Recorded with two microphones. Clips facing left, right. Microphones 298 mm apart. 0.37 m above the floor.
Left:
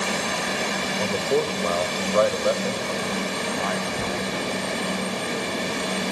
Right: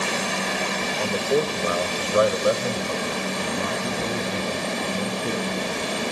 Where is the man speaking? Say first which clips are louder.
Right 1 dB; 5° left (ahead or behind), 1.0 m; by 5.7 s 40° right (ahead or behind), 3 m.